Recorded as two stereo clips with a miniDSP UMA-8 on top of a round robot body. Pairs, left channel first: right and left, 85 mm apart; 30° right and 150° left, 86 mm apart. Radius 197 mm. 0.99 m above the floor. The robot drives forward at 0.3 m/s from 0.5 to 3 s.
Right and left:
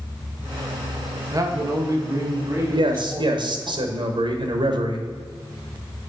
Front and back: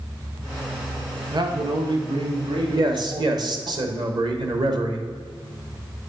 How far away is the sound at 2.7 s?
About 1.2 m.